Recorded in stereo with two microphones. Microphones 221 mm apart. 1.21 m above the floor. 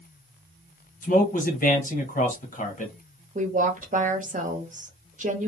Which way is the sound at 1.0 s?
40° left (ahead or behind).